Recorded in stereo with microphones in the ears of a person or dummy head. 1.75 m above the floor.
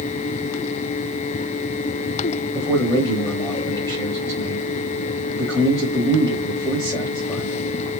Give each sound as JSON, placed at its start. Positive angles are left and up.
{"t": 2.5, "sound": "a man speaking", "side_deg": 5, "distance_m": 1.1}